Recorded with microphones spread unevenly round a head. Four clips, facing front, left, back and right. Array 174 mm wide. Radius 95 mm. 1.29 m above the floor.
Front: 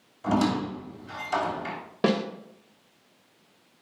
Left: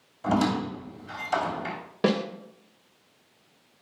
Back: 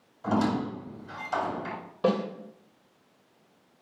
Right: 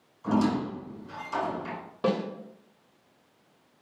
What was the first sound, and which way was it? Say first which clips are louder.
A squeak: left 1 dB, front 2 dB; 75° left.